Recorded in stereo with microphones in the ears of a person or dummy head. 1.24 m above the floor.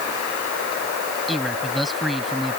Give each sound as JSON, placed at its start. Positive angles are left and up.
{"t": 1.3, "sound": "a man speaking", "side_deg": 0}